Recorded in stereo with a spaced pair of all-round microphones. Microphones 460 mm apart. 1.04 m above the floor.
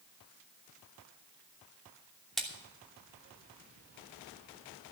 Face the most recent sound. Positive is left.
turn(degrees=0)  # may be behind; listen again after turning